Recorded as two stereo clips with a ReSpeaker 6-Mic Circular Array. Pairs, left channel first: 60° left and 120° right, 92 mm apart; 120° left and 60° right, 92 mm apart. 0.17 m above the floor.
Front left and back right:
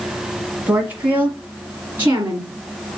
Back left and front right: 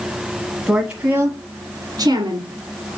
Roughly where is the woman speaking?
Behind right.